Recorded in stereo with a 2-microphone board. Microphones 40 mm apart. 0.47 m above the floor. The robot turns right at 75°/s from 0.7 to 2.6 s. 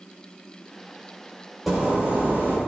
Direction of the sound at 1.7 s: 175° right.